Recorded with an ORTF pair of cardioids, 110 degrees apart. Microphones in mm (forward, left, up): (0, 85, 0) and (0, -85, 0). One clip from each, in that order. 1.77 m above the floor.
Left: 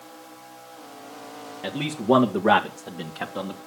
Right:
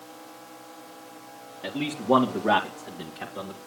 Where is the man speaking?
20° left, 2 m; by 3.6 s 50° left, 2.5 m.